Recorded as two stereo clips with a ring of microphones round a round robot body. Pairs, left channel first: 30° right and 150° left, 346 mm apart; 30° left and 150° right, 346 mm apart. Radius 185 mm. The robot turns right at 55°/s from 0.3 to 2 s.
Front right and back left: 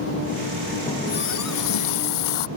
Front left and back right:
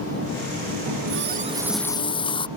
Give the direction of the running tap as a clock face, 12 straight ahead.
4 o'clock.